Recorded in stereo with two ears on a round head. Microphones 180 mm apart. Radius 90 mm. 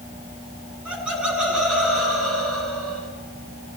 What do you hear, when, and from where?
0.8 s laughter: 5° right (ahead or behind), 9 m; by 3.1 s centre (ahead or behind), 8.5 m